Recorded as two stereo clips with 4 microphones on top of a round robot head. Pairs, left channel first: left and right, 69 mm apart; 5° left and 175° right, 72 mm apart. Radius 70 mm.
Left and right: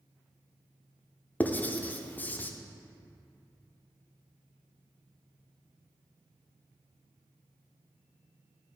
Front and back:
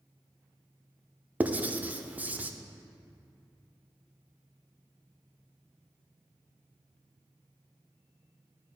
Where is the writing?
135° left, 0.6 m.